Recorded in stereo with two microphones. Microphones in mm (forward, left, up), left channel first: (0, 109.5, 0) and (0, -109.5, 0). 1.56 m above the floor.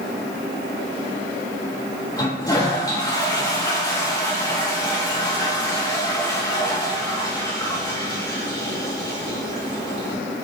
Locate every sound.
2.2 s a toilet flushing: 20° left (ahead or behind), 3.5 m